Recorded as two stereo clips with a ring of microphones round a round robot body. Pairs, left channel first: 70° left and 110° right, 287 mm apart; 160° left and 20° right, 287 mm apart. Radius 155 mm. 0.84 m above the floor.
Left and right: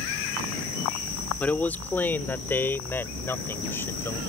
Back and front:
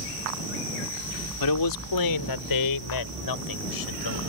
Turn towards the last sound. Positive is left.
turn(degrees=150)